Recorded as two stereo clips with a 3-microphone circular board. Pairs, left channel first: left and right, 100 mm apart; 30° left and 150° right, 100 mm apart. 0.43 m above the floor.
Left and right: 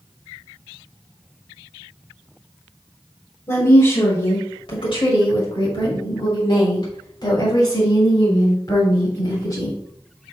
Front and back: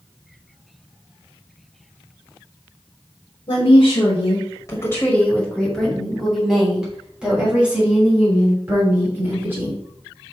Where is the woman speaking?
40° left, 1.8 m; by 9.8 s 140° left, 6 m.